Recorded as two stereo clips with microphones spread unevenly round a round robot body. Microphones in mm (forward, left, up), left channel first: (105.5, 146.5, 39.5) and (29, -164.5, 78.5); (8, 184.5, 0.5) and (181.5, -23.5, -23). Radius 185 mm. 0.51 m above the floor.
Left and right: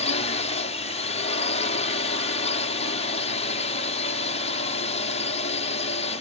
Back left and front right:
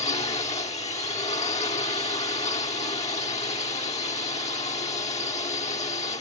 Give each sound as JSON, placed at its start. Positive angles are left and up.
{"t": 0.0, "sound": "a drone", "azimuth_deg": 90}